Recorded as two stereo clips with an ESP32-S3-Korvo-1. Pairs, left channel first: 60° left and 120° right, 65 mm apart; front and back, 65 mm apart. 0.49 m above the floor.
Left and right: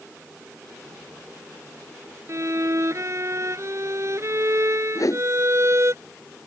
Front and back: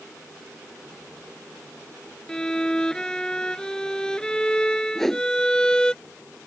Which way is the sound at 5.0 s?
85° left.